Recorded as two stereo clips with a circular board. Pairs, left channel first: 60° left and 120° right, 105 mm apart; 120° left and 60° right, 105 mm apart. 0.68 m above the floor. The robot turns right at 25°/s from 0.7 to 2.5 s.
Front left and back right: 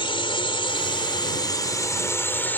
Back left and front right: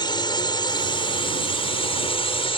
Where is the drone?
85° left; by 2.6 s 130° left.